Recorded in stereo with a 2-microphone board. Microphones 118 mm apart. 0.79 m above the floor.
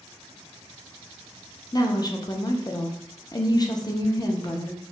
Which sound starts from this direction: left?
A woman speaking, at 1.7 s.